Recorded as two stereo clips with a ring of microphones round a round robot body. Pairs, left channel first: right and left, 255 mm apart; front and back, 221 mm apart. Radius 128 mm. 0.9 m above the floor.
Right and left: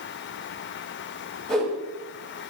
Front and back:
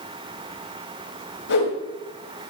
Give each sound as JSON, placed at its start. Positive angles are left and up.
{"t": 1.5, "sound": "a whoosh", "azimuth_deg": 0, "distance_m": 7.0}